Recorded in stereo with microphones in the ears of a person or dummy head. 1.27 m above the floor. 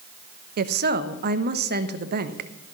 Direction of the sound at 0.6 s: 45° right (ahead or behind).